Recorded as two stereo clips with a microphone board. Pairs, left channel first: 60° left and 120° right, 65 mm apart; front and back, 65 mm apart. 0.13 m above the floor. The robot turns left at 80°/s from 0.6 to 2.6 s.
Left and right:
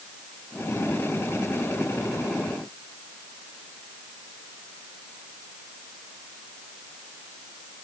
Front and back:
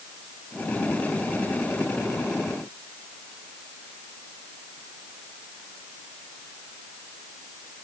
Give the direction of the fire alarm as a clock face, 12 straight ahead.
I don't hear a fire alarm.